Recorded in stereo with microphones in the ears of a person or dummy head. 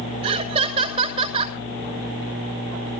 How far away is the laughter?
About 5 m.